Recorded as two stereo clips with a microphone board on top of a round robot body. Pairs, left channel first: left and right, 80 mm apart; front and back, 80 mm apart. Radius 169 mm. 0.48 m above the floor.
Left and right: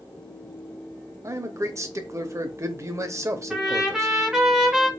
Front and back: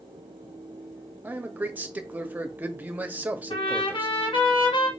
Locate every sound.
1.2 s a man speaking: 120° right, 1.0 m
3.5 s a trumpet: 5° right, 1.2 m